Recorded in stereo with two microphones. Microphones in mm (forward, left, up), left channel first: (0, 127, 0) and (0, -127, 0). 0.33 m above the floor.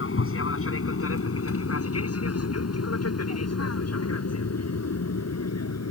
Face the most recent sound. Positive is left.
turn(degrees=75)  # may be behind; listen again after turning